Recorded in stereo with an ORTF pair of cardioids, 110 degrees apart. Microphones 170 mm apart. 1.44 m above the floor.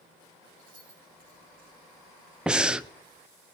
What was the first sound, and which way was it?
Keys jangling, 55° right.